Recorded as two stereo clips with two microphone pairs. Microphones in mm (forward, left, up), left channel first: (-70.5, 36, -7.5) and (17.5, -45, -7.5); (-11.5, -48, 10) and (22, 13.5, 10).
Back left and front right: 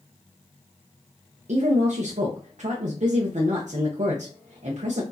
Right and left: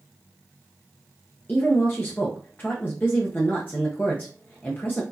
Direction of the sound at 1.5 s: 55° right.